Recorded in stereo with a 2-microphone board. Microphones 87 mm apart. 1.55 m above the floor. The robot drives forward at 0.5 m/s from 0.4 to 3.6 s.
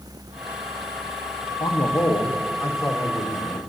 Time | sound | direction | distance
1.6 | a man speaking | 60° left (ahead or behind) | 0.9 m